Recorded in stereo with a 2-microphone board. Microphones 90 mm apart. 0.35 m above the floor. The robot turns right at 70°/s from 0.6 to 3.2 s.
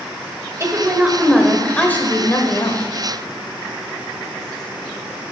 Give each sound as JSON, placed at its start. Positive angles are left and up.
{"t": 0.6, "sound": "a woman speaking", "azimuth_deg": -60, "distance_m": 1.0}